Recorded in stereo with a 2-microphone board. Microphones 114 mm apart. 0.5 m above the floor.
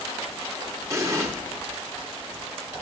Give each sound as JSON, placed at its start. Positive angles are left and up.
{"t": 0.9, "sound": "an explosion", "side_deg": -25, "distance_m": 1.0}